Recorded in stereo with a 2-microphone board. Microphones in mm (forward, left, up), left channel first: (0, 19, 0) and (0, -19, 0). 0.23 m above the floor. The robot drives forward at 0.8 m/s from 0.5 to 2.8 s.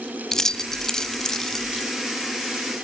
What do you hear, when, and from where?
0.3 s keys jangling: 15° left (ahead or behind), 0.7 m; by 1.9 s 10° left (ahead or behind), 1.0 m